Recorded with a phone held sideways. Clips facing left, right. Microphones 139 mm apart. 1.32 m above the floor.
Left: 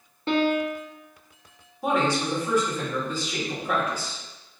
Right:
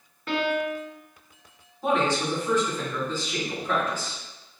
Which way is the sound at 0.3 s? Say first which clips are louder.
Left 3 dB; 30° left (ahead or behind).